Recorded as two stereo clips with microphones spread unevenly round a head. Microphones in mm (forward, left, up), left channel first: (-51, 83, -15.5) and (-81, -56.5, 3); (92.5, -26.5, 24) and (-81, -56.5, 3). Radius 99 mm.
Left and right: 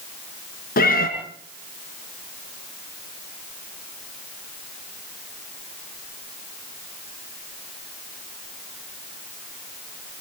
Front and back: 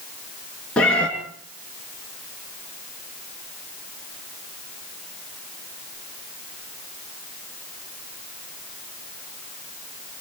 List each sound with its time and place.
0.8 s a cat meowing: 95° left, 3.5 m